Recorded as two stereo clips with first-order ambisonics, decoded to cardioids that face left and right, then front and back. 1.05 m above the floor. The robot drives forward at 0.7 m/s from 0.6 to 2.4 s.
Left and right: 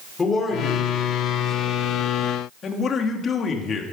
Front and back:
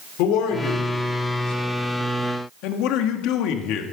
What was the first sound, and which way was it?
A man speaking, 15° left.